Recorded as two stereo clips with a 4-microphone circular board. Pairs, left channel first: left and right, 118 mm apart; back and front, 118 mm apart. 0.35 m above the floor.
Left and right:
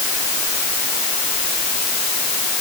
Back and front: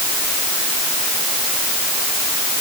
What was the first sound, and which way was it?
Only background noise.